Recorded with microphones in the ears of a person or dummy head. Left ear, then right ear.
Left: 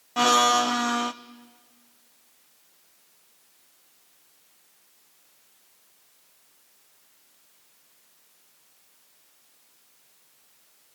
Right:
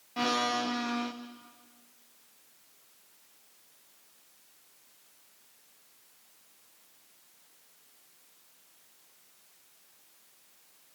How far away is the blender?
About 0.5 m.